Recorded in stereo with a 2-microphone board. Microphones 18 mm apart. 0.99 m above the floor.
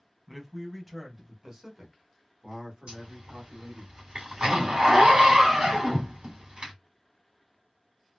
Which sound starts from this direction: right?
A zipper, at 2.9 s.